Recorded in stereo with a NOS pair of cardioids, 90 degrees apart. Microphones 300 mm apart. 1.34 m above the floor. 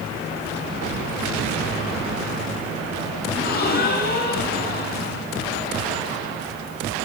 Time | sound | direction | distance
3.3 | a gasp | 35° left | 7 m